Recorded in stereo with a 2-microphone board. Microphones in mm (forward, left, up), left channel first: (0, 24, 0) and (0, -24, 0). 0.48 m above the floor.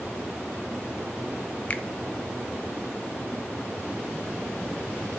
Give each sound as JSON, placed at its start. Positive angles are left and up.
{"t": 1.7, "sound": "a finger snap", "side_deg": 30, "distance_m": 0.7}